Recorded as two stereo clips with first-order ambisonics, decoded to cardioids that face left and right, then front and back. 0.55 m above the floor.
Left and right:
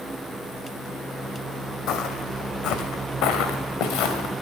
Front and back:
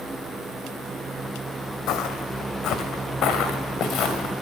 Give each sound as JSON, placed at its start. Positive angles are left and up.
{"t": 1.9, "sound": "footsteps", "azimuth_deg": 50, "distance_m": 1.4}